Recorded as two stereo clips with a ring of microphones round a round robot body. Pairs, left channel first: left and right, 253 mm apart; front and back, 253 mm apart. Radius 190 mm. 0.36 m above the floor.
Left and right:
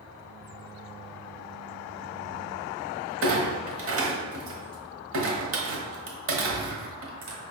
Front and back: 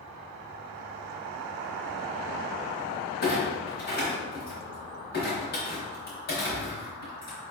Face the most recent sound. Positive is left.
turn(degrees=-55)